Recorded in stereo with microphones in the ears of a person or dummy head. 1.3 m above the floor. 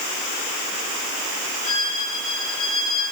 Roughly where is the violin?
Left.